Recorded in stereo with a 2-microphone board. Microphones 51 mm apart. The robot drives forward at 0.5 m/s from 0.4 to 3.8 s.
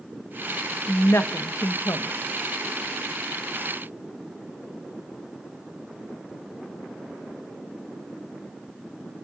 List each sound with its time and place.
0.9 s a woman speaking: 50° left (ahead or behind), 0.9 m; by 2.1 s 80° left, 0.7 m